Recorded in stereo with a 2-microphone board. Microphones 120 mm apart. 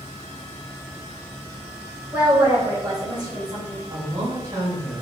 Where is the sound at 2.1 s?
15° right (ahead or behind), 0.8 m; by 3.8 s 40° right (ahead or behind), 1.1 m.